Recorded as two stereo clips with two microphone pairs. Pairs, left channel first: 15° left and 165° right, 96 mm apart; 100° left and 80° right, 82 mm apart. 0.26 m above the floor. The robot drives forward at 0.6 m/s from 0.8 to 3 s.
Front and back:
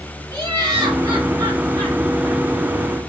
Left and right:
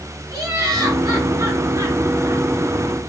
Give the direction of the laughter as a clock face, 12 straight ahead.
4 o'clock.